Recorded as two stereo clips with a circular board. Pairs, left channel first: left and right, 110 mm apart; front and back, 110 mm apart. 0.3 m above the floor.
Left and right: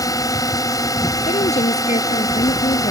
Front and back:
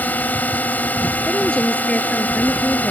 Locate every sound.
0.0 s a drone: 65° left
1.3 s a woman speaking: 80° left